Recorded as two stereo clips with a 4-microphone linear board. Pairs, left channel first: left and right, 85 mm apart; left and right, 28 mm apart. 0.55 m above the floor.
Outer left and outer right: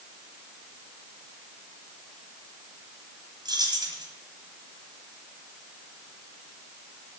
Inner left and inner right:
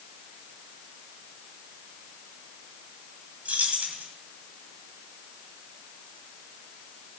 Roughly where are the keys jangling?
Right.